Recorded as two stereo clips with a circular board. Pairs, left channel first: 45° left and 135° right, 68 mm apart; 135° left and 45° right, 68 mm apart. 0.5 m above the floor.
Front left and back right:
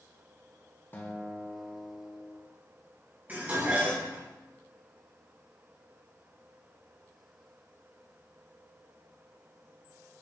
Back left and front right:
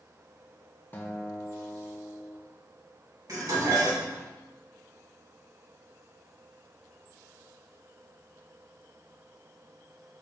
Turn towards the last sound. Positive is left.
turn(degrees=-70)